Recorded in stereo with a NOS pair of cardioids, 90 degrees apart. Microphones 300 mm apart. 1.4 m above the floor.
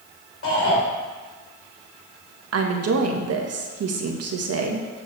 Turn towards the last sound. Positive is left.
turn(degrees=-55)